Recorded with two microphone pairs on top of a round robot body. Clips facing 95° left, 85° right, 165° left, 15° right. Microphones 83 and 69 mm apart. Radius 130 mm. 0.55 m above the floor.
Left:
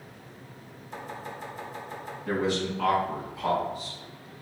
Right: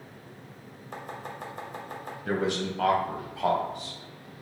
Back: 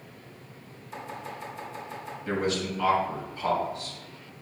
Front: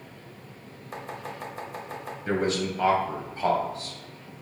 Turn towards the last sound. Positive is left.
turn(degrees=-65)